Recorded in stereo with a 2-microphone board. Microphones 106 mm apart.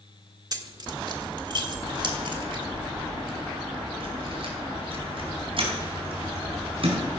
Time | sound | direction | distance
0.5 | keys jangling | 40° right (ahead or behind) | 1.2 m